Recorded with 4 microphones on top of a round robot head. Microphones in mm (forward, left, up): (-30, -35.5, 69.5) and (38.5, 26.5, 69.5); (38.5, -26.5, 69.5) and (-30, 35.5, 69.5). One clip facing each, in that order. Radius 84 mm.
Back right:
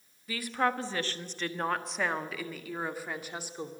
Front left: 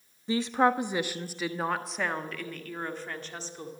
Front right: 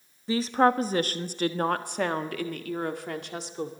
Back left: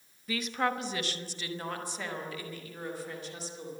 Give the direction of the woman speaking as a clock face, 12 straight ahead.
12 o'clock.